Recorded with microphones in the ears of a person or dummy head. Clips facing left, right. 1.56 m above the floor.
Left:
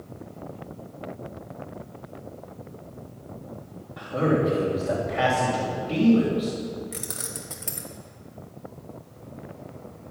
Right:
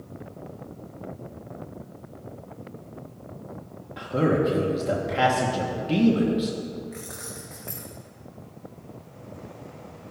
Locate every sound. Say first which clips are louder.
4.0 s a man speaking: right 1 dB; 35° right (ahead or behind), 1.5 m
6.9 s keys jangling: left 1 dB; 45° left (ahead or behind), 1.2 m